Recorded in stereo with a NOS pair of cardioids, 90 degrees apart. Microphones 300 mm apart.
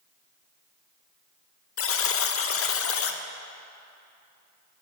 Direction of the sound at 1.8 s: 45° left.